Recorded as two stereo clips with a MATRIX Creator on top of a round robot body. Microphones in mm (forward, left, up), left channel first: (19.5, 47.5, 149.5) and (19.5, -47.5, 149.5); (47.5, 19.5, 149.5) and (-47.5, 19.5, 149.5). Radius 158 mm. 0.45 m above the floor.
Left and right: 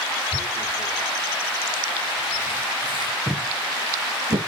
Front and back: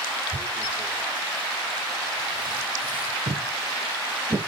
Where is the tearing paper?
110° right, 4 m.